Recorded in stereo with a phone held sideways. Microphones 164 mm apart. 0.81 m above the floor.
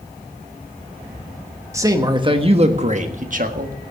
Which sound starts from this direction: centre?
A man speaking, at 1.7 s.